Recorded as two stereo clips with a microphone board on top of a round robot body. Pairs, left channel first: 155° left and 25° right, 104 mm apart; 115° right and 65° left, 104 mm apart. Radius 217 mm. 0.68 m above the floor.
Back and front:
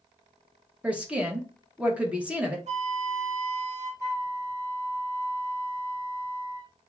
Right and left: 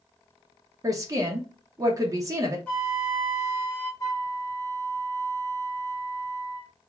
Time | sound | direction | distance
0.8 | a woman speaking | 50° left | 0.9 m
2.7 | a flute | 35° right | 0.6 m
4.0 | a flute | 70° right | 1.3 m